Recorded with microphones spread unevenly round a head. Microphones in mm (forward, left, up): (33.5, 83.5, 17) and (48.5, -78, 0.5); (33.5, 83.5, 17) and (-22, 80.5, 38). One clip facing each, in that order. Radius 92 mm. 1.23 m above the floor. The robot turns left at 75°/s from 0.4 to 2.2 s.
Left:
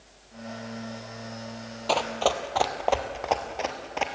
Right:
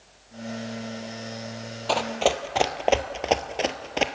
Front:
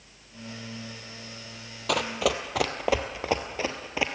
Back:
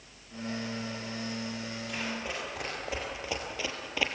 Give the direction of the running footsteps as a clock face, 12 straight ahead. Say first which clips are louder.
Right 2 dB, front 12 dB; 12 o'clock.